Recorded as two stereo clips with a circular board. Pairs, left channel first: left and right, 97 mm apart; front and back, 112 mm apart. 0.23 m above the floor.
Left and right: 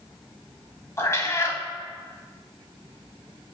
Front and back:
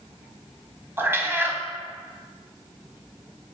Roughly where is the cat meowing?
Behind left.